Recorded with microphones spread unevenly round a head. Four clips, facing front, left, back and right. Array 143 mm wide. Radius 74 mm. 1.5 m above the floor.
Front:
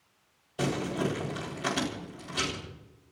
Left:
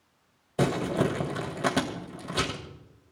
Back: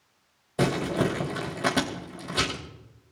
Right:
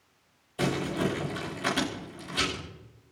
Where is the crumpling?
130° left, 3 m.